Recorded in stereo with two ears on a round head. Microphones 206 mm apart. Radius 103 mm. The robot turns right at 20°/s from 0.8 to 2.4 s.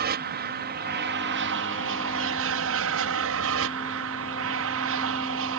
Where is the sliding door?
I don't hear a sliding door.